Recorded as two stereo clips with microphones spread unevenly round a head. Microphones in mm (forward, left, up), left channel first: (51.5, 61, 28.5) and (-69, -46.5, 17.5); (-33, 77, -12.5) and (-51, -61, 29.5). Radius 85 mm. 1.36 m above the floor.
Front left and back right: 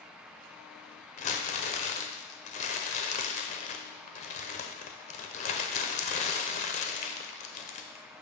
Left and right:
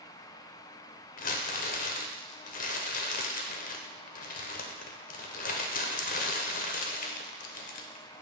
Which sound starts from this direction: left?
Crumpling, at 1.2 s.